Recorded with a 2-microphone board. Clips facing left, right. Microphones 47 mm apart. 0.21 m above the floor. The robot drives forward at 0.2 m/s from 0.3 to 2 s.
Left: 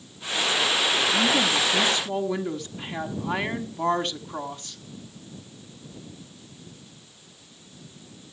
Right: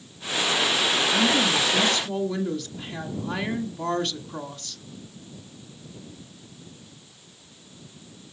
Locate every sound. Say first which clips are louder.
1.1 s a woman speaking: right 1 dB; 25° left (ahead or behind), 1.3 m